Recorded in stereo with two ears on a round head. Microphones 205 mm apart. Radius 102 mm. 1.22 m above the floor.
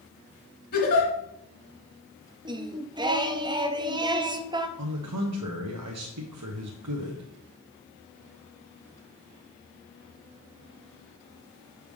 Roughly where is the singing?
Centre.